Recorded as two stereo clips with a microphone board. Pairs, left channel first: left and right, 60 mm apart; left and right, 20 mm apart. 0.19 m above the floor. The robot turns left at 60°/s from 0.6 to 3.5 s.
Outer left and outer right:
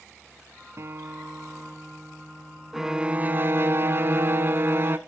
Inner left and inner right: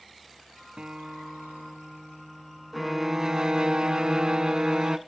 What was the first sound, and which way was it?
A guitar, 115° right.